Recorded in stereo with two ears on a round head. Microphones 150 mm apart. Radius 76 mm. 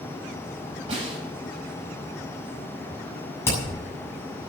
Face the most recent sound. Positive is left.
turn(degrees=15)  # may be behind; listen again after turning